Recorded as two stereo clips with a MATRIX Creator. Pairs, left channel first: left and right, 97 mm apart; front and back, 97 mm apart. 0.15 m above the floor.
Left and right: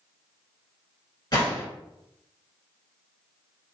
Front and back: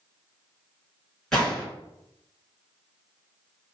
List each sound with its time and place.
1.3 s a gunshot: 85° left, 1.8 m